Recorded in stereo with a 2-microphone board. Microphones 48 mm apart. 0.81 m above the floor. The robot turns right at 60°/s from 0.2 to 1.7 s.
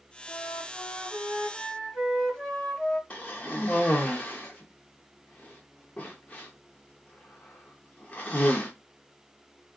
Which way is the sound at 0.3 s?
70° left.